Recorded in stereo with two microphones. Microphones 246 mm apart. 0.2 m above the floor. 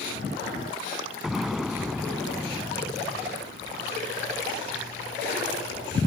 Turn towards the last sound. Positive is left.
turn(degrees=0)  # may be behind; listen again after turning